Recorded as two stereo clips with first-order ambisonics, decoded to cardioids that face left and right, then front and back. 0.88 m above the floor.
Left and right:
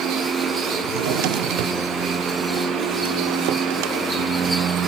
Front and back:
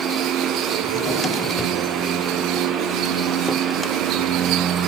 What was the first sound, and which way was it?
A drawer, 75° right.